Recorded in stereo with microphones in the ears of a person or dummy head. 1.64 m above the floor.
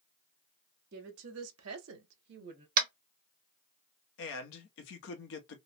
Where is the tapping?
50° right (ahead or behind), 0.8 m.